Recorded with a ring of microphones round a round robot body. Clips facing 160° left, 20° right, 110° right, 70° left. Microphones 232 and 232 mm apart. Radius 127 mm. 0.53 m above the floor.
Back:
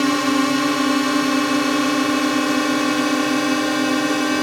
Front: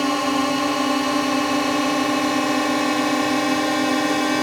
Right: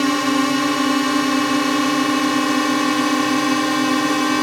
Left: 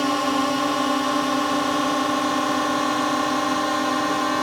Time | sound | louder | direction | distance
0.0 | a drone | back 3 dB, right 5 dB | 150° right | ?